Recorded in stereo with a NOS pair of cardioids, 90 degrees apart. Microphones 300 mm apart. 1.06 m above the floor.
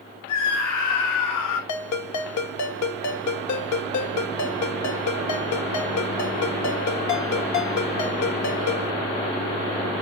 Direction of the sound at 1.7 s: 65° left.